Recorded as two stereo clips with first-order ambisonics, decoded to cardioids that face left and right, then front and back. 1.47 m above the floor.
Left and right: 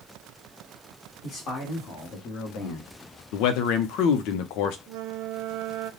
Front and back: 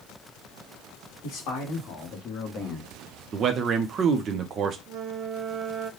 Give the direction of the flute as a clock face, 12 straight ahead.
4 o'clock.